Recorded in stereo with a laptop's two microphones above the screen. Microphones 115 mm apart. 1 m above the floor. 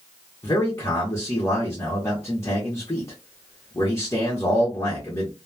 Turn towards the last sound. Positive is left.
turn(degrees=25)  # may be behind; listen again after turning